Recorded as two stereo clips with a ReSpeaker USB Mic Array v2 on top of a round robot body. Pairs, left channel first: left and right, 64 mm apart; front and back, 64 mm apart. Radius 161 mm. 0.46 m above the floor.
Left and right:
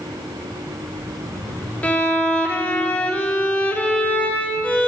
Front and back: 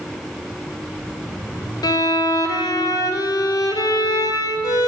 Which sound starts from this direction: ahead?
A violin, at 1.8 s.